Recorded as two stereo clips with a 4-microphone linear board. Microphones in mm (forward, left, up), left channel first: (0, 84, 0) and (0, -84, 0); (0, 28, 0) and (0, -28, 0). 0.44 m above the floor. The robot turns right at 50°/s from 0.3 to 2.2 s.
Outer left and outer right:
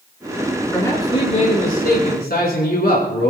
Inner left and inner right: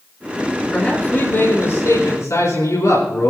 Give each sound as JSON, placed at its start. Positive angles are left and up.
{"t": 0.7, "sound": "a man speaking", "azimuth_deg": 10, "distance_m": 4.5}